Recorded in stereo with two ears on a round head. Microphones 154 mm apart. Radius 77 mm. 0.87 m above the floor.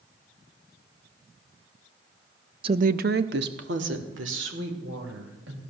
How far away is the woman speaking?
About 0.6 m.